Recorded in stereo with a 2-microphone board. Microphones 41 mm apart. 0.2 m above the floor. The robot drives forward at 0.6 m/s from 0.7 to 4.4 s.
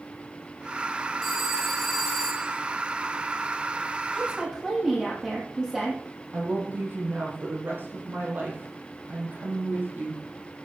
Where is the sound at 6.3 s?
55° right (ahead or behind), 6 m.